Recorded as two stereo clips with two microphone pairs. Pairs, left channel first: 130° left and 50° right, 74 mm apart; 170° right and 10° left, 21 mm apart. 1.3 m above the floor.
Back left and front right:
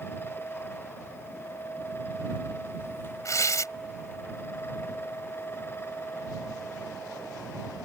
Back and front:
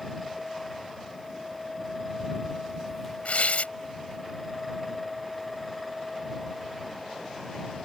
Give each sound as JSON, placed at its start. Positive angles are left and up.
{"t": 3.2, "sound": "tearing paper", "azimuth_deg": 175}